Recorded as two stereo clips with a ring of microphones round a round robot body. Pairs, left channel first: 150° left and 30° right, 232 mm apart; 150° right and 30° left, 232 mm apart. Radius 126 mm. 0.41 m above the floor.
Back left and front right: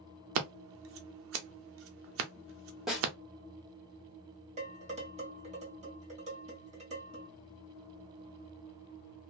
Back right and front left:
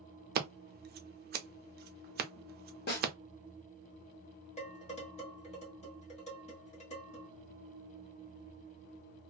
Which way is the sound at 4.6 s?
90° right.